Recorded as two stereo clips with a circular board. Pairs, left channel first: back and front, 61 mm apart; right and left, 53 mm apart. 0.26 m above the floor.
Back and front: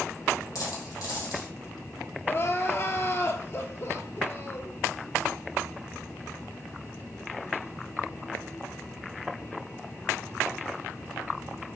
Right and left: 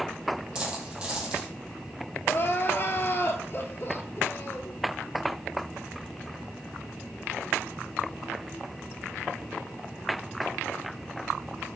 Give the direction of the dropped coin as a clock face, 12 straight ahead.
7 o'clock.